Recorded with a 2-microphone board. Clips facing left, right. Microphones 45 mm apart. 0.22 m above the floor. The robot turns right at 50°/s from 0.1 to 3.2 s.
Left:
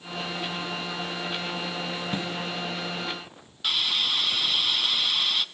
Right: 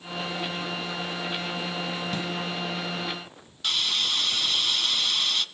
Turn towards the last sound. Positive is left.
turn(degrees=10)  # may be behind; listen again after turning